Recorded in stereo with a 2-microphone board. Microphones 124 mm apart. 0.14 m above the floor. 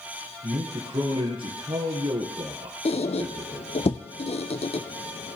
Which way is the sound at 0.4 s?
50° right (ahead or behind).